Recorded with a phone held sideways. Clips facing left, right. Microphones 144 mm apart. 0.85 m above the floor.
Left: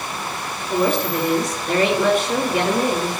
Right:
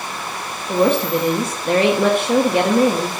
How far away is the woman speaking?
About 1.4 m.